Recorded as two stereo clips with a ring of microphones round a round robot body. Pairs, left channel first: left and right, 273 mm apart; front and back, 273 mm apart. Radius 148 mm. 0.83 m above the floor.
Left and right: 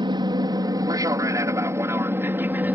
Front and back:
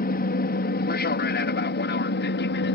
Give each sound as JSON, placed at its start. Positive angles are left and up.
{"t": 0.0, "sound": "an aircraft", "azimuth_deg": -30}